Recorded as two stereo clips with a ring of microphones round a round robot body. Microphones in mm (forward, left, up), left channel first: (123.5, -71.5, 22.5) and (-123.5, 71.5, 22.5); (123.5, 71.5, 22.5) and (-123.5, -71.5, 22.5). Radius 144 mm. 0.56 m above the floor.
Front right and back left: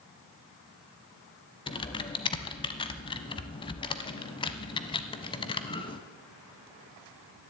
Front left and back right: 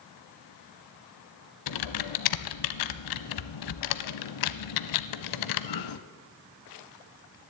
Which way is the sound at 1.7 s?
45° left.